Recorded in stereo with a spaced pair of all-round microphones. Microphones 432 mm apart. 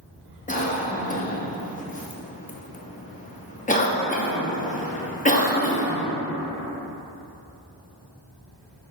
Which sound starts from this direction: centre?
A cough, at 0.5 s.